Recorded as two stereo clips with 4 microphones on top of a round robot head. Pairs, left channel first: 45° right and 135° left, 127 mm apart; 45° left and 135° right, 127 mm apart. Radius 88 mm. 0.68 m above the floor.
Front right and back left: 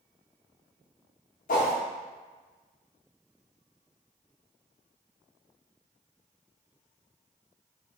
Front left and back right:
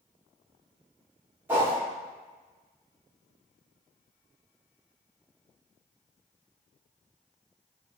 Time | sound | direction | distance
1.5 | a whoosh | 55° right | 0.9 m